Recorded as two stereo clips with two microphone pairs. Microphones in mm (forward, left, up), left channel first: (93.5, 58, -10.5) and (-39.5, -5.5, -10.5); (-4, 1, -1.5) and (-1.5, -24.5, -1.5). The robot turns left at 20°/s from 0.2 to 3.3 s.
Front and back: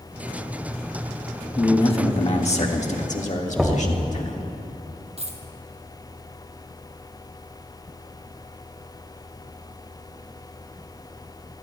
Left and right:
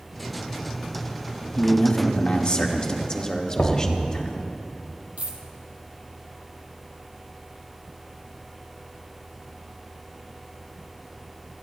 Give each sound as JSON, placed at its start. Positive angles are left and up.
{"t": 1.6, "sound": "a man speaking", "azimuth_deg": 70, "distance_m": 1.5}
{"t": 3.6, "sound": "knocking", "azimuth_deg": 120, "distance_m": 1.8}
{"t": 5.2, "sound": "a dropped coin", "azimuth_deg": -110, "distance_m": 2.0}